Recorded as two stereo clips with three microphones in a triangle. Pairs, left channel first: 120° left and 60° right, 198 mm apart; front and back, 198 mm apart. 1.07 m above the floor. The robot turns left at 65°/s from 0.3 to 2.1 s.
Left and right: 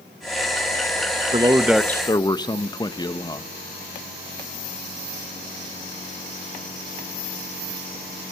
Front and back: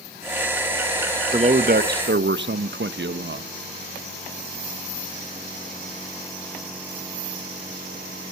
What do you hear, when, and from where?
1.3 s a man speaking: 120° right, 0.8 m; by 3.5 s 170° right, 0.8 m